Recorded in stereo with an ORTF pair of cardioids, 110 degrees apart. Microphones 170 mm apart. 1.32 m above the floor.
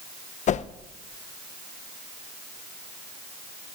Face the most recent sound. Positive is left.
turn(degrees=45)